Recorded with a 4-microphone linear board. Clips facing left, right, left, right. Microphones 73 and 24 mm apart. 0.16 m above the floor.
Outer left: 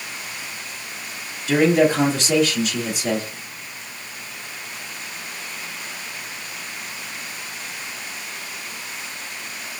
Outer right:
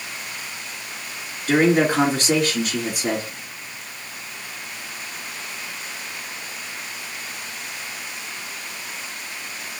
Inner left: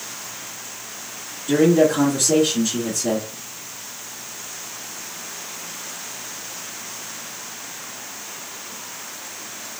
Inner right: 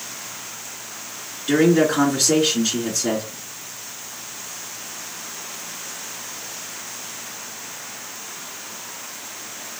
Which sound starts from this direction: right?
A man speaking, at 1.5 s.